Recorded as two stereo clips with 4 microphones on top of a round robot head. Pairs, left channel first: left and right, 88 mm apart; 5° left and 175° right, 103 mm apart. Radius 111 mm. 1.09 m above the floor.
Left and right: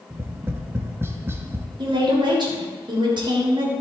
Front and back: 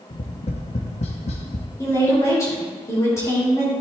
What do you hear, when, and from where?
0.1 s tapping: 25° right, 0.8 m
1.8 s a woman speaking: 60° right, 3 m